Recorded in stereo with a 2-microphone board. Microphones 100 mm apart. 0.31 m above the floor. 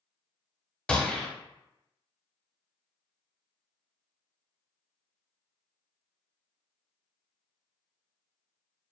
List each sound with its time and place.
0.9 s a gunshot: 10° left (ahead or behind), 0.6 m